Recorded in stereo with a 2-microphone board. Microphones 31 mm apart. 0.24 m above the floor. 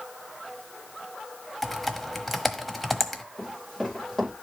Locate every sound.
1.6 s typing on a keyboard: 5° left (ahead or behind), 1.1 m
3.4 s running footsteps: 15° left (ahead or behind), 10 m